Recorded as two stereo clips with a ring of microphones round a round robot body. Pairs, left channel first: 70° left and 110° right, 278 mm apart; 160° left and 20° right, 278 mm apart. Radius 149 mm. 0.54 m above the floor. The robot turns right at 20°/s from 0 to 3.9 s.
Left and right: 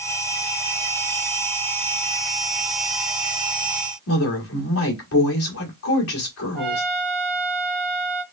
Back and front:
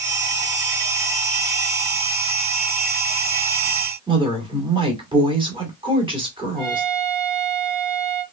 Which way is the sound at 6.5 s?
25° right.